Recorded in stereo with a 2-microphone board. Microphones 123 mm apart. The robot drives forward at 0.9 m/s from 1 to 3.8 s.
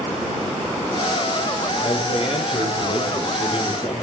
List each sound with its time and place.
1.8 s a man speaking: 50° left (ahead or behind), 10 m; by 3.9 s 45° left (ahead or behind), 11 m